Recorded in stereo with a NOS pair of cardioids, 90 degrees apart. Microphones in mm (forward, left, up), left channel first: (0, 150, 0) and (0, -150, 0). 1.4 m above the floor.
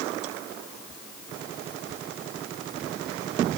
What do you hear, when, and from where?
Only background noise.